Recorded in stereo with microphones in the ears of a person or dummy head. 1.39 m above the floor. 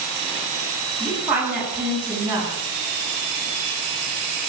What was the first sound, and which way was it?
A woman speaking, 10° right (ahead or behind).